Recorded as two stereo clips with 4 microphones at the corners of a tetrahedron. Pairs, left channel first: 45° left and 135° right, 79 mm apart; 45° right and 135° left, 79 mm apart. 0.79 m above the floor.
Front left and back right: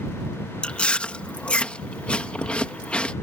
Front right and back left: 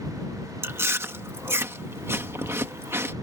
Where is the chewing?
110° left.